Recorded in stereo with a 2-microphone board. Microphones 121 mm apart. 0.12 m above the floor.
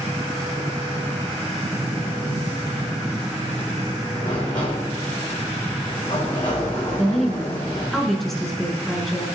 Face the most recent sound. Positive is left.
turn(degrees=0)  # may be behind; listen again after turning